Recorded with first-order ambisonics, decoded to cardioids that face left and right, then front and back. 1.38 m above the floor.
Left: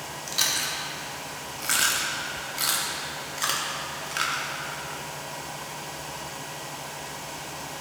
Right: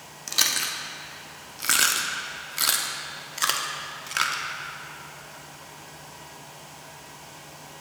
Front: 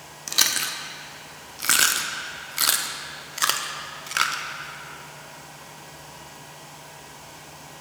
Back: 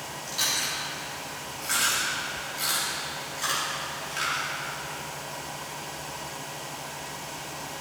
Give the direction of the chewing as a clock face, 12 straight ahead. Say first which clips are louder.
Right 2 dB, front 5 dB; 1 o'clock.